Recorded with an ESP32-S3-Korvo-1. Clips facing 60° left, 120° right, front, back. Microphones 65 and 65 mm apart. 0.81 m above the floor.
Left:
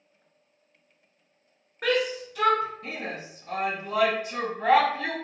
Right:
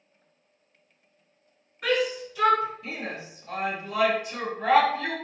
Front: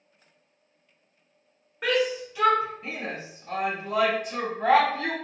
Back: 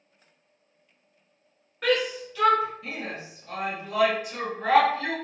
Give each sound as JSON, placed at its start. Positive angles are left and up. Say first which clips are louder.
{"t": 1.8, "sound": "a shout", "louder": "even, even", "azimuth_deg": 75, "distance_m": 1.8}